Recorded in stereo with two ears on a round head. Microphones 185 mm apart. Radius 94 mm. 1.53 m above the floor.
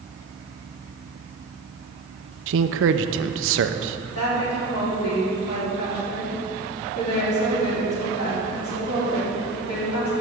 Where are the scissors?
I don't hear scissors.